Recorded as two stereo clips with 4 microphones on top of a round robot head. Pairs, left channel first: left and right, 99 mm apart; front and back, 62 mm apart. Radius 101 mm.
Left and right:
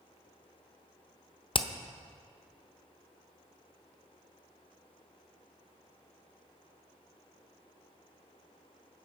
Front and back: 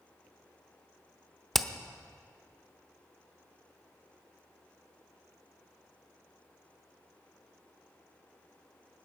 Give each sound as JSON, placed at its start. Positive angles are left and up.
{"t": 1.5, "sound": "hammering", "azimuth_deg": 90, "distance_m": 1.0}